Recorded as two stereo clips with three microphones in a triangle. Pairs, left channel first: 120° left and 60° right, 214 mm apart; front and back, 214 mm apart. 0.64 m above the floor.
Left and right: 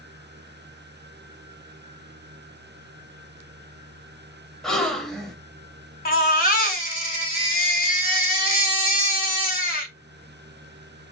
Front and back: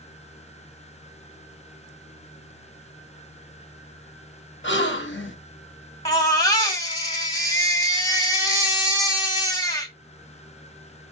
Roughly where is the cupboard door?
No cupboard door in this recording.